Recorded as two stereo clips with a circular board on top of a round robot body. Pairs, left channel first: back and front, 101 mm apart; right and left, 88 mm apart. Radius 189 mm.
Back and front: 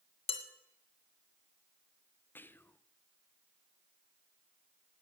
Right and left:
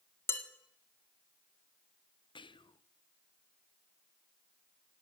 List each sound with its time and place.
0.3 s dishes clattering: 155° right, 1.7 m
2.4 s whispering: 110° right, 0.7 m